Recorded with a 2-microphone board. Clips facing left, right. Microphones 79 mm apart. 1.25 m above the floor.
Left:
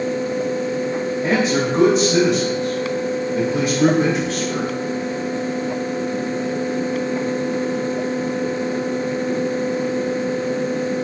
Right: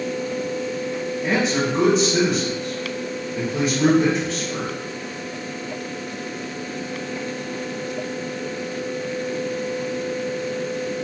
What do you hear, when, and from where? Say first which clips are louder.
1.2 s a man speaking: left 2 dB; 85° left, 2.5 m